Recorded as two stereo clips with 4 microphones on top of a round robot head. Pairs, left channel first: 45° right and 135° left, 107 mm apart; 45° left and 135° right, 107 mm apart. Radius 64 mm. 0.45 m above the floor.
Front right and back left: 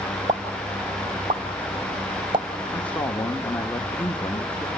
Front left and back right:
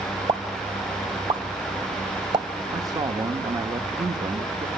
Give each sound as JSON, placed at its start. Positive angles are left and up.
{"t": 0.3, "sound": "a pop", "azimuth_deg": 180, "distance_m": 1.7}
{"t": 2.7, "sound": "a man speaking", "azimuth_deg": -120, "distance_m": 1.1}